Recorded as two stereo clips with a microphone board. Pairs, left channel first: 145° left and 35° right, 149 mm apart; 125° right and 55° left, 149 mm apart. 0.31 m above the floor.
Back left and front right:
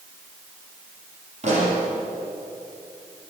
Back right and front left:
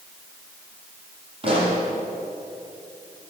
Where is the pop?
5° left, 9 m.